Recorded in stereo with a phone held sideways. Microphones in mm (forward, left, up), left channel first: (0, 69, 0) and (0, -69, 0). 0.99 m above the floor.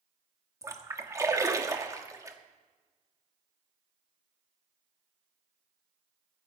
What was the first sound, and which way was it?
A splash, 25° right (ahead or behind).